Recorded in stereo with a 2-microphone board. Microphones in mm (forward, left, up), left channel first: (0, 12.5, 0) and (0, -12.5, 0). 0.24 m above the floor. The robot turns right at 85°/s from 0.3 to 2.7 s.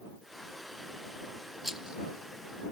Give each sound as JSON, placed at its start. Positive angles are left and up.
{"t": 1.6, "sound": "a rattle", "side_deg": -5}